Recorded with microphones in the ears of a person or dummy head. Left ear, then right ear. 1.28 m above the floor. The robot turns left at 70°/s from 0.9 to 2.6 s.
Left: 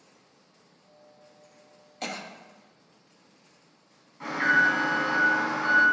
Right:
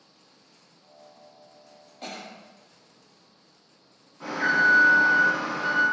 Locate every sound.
2.0 s a cough: 55° left (ahead or behind), 0.6 m; by 2.3 s 60° left (ahead or behind), 0.6 m
4.2 s an alarm: 10° left (ahead or behind), 1.2 m